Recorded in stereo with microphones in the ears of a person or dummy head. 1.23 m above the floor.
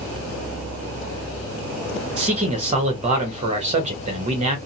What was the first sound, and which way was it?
A man speaking, 35° right (ahead or behind).